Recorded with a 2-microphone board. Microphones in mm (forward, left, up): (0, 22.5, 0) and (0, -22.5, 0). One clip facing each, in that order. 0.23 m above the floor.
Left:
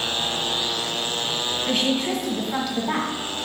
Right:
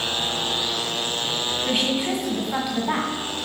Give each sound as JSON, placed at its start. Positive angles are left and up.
{"t": 1.7, "sound": "a woman speaking", "side_deg": -15, "distance_m": 1.4}